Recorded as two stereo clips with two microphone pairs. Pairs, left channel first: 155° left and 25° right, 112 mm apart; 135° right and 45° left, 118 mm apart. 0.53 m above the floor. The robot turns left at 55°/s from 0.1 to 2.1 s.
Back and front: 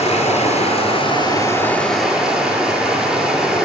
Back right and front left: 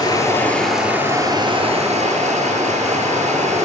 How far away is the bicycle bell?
No bicycle bell in this recording.